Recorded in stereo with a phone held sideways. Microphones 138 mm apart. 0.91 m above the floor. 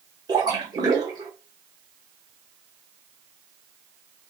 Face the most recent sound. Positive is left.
turn(degrees=-30)  # may be behind; listen again after turning